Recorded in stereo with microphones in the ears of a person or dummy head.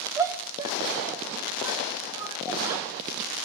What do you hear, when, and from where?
0.2 s a shout: 25° right (ahead or behind), 2.5 m